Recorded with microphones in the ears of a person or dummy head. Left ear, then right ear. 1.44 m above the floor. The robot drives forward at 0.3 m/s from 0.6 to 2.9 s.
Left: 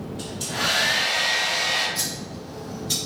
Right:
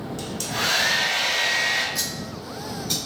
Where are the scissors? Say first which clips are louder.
Right 1 dB; 25° right (ahead or behind), 1.2 m; by 3.0 s 20° right (ahead or behind), 1.5 m.